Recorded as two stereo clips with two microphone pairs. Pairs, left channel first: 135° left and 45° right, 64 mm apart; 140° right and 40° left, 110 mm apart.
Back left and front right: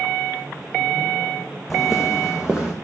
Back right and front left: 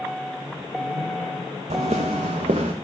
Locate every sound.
1.7 s footsteps: 45° left, 1.5 m; by 2.7 s 30° left, 2 m